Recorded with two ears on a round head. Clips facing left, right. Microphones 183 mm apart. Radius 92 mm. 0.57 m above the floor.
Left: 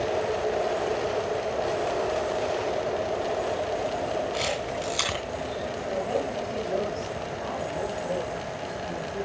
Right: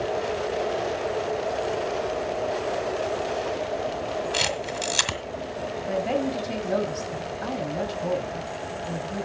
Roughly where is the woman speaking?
Right.